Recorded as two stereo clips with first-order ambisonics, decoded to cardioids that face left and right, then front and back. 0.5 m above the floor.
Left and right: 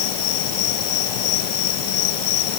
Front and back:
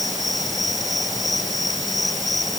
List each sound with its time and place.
0.0 s an insect: 85° left